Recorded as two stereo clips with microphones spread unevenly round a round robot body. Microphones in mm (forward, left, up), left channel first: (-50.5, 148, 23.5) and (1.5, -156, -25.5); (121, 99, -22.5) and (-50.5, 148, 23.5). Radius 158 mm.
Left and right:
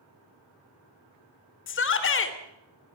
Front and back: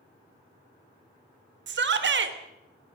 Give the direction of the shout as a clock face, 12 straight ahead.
7 o'clock.